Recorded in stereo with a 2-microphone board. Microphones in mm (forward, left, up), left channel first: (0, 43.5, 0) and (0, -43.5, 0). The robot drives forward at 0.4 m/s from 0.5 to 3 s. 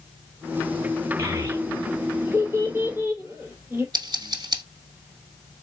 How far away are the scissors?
About 1.2 m.